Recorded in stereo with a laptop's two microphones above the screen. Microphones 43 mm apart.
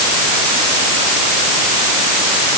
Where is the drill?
I don't hear a drill.